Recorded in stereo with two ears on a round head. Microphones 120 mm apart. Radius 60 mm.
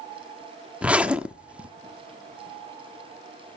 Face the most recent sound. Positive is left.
turn(degrees=-10)  # may be behind; listen again after turning